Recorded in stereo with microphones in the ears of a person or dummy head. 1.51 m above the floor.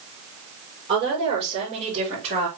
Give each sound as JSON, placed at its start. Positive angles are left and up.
{"t": 0.9, "sound": "a woman speaking", "side_deg": -25, "distance_m": 6.0}